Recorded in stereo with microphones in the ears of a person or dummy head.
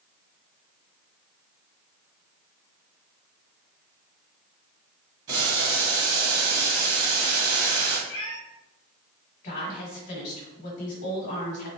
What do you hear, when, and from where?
5.3 s boiling: 25° right (ahead or behind), 1.3 m
8.1 s a cat meowing: 55° left (ahead or behind), 1.1 m
9.4 s a woman speaking: 60° left (ahead or behind), 1.3 m